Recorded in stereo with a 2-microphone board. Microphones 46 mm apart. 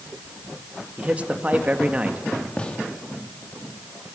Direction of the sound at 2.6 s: 20° left (ahead or behind).